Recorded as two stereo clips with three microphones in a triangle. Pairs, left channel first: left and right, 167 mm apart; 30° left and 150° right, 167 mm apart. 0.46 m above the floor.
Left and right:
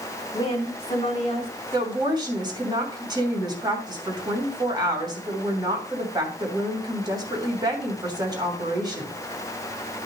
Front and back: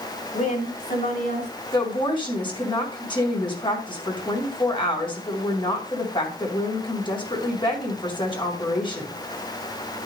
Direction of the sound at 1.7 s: 30° right.